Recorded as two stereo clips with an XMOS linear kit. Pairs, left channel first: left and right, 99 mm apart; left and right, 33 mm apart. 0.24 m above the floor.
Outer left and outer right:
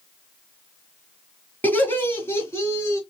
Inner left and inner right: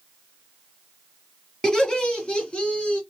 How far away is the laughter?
About 1.9 m.